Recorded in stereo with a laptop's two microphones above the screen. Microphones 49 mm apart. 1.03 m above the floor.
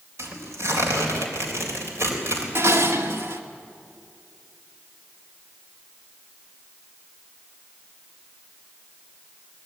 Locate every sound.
0.2 s tearing paper: 70° right (ahead or behind), 3.5 m
2.5 s dishes clattering: 65° right (ahead or behind), 1.5 m